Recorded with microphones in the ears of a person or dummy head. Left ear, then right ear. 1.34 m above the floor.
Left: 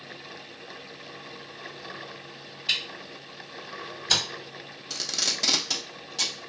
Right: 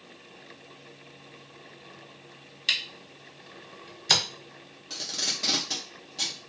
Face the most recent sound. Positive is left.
turn(degrees=15)  # may be behind; listen again after turning